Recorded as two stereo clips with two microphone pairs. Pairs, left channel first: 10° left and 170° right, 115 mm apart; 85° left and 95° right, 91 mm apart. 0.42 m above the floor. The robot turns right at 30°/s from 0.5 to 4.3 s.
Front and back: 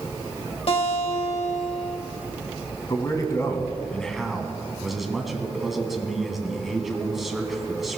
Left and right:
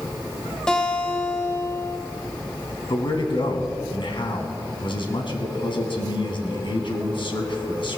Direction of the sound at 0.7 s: 5° left.